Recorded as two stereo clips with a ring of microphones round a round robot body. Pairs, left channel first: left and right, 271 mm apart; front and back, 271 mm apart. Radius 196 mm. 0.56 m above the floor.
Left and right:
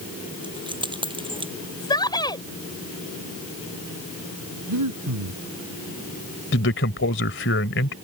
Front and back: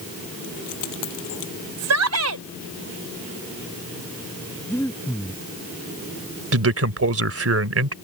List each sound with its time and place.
0.4 s keys jangling: 15° right; by 1.5 s 20° right
1.8 s a shout: 170° left
4.7 s breathing: 85° right
6.5 s a man speaking: 145° left